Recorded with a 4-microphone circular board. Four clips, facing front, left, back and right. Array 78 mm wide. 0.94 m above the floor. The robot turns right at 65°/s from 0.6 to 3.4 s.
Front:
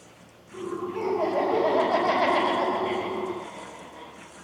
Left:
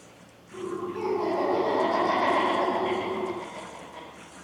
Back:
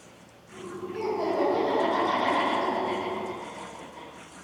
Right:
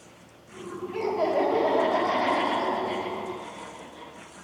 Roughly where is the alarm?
No alarm in this recording.